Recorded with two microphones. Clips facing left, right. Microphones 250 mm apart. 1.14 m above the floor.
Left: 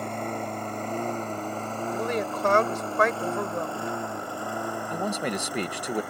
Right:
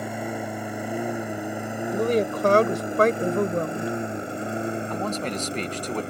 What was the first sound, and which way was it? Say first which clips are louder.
A lawn mower: right 2 dB; 10° right (ahead or behind).